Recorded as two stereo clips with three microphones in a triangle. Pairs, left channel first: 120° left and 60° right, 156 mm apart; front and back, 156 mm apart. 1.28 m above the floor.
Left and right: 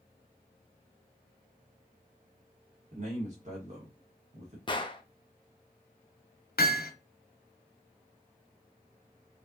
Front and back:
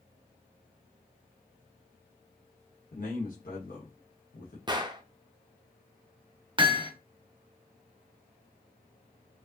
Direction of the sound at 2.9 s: 20° right.